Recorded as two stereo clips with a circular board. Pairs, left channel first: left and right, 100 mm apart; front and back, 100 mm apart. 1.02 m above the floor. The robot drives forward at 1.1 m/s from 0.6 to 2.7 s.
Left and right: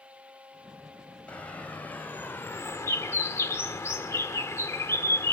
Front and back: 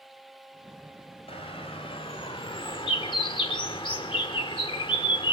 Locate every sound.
1.3 s a bird: 15° left, 3 m; by 5.3 s 30° left, 1.4 m